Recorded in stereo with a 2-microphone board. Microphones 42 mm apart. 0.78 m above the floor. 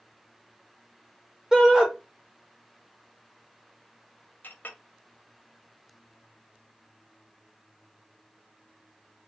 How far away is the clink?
About 0.5 m.